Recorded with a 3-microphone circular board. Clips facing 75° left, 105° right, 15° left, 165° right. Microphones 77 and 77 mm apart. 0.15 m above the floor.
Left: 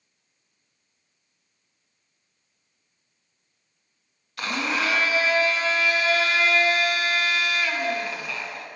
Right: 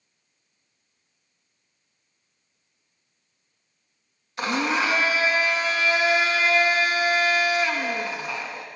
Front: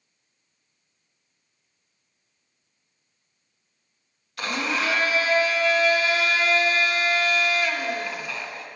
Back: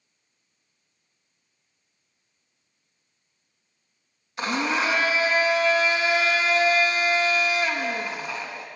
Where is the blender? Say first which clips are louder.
Right 3 dB, back 2 dB; 135° right, 0.7 m.